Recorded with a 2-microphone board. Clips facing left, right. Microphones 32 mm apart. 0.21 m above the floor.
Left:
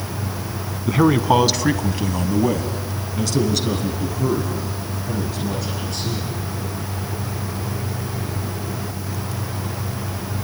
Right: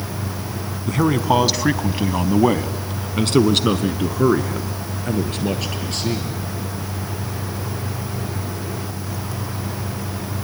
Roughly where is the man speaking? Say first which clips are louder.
Left 2 dB; centre.